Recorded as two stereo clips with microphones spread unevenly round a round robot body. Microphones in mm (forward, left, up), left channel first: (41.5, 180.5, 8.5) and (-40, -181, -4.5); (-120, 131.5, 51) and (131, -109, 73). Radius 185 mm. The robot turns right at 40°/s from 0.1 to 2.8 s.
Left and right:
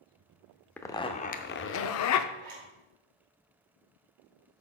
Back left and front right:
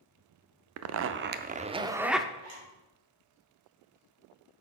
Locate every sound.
0.8 s a zipper: 10° right, 0.5 m; by 2.2 s 50° left, 0.5 m
2.4 s a zipper: 75° right, 3.5 m; by 2.7 s 60° right, 3.5 m